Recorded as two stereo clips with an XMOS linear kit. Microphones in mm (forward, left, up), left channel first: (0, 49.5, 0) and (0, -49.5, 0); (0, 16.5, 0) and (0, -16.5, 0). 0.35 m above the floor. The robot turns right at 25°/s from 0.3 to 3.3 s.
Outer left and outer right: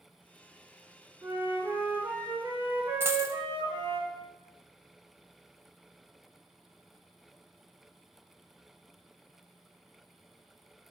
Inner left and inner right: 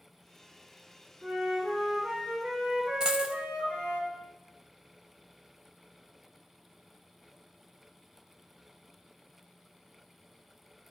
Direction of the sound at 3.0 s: 25° right (ahead or behind).